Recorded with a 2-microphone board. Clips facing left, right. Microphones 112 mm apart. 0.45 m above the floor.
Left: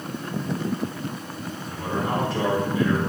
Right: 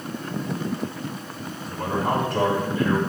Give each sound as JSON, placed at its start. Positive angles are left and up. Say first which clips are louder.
{"t": 1.7, "sound": "a man speaking", "louder": "right 3 dB", "side_deg": -50, "distance_m": 2.5}